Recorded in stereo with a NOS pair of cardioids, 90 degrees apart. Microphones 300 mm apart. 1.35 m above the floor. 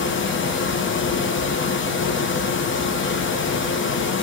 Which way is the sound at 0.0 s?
40° left.